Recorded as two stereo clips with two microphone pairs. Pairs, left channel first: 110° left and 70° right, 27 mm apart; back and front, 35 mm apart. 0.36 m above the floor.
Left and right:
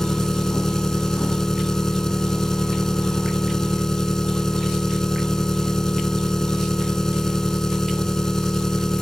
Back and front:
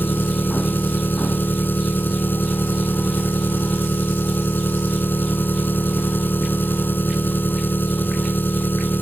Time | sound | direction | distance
0.0 | an engine running | straight behind | ?